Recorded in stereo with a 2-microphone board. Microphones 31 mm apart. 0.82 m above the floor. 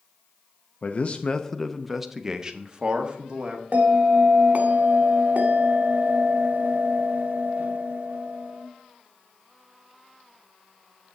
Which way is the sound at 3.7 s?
55° right (ahead or behind).